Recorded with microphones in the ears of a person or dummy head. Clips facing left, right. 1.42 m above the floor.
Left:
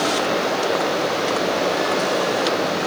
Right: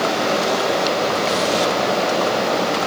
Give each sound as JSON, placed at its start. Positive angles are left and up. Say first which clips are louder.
{"t": 0.0, "sound": "running water", "louder": "right 1 dB", "side_deg": -75, "distance_m": 8.0}